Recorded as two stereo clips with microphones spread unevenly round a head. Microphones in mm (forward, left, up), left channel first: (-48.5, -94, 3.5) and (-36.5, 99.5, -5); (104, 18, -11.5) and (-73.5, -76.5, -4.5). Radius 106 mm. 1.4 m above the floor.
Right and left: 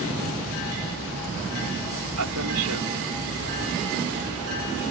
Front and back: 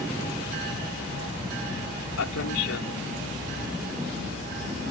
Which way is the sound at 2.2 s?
60° left.